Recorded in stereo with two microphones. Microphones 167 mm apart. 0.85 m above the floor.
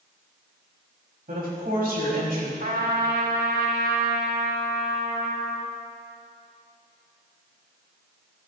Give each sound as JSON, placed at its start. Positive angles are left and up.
{"t": 1.3, "sound": "a woman speaking", "side_deg": -70, "distance_m": 4.5}
{"t": 2.6, "sound": "a trumpet", "side_deg": -70, "distance_m": 1.8}